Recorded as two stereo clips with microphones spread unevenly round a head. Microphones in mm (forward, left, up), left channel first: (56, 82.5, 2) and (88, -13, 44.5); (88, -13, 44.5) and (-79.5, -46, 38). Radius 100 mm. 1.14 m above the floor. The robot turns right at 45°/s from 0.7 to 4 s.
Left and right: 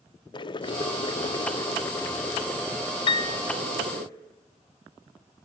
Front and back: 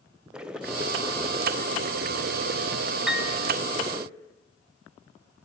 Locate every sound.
0.3 s boiling: 105° left, 0.7 m; by 4.1 s 105° right, 0.7 m
3.1 s a piano: 105° left, 0.6 m; by 3.4 s 120° left, 0.6 m